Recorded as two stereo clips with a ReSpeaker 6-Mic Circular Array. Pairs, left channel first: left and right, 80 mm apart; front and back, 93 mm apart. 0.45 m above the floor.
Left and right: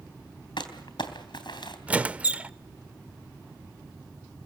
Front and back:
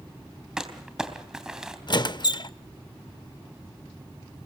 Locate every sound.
0.6 s crumpling: 100° left, 3 m
1.9 s a squeak: 20° right, 0.5 m